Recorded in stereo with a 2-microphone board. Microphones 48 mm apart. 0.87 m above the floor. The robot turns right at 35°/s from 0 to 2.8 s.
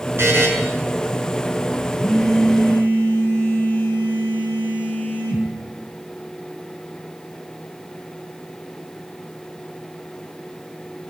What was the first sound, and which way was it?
A buzzer, 55° right (ahead or behind).